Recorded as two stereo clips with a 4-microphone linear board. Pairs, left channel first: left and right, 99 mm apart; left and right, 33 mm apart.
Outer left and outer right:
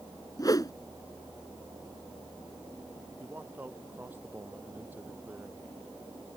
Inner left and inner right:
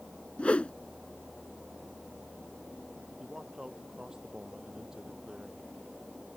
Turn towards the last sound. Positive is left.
turn(degrees=-20)  # may be behind; listen again after turning